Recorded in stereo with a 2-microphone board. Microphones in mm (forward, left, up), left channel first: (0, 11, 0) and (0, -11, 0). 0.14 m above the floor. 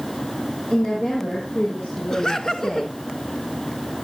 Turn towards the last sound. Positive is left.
turn(degrees=25)  # may be behind; listen again after turning